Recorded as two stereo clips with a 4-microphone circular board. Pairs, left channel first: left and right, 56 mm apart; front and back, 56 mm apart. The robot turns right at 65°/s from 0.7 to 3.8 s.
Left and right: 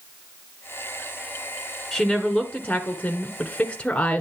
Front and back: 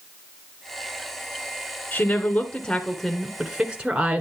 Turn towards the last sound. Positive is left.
turn(degrees=130)